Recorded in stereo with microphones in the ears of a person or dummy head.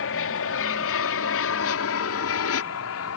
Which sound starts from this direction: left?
An aircraft, at 0.0 s.